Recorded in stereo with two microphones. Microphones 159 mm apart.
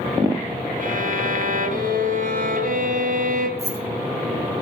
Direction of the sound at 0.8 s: 60° right (ahead or behind).